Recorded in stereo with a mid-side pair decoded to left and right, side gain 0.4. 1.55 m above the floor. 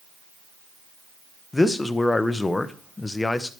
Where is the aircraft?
I don't hear an aircraft.